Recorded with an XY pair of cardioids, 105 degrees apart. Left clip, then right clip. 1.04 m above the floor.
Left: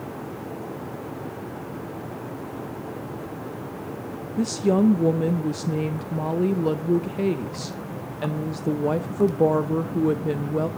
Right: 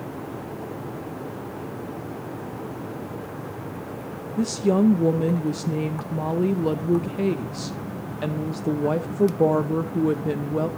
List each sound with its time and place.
4.4 s a woman speaking: straight ahead, 0.5 m